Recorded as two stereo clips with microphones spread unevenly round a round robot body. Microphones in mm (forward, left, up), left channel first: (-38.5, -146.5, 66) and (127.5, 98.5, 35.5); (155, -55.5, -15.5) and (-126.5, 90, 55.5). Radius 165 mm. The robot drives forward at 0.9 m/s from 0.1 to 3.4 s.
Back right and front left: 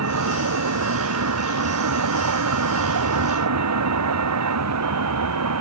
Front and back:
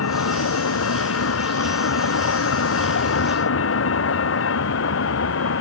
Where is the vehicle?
20° left; by 5.6 s 25° left.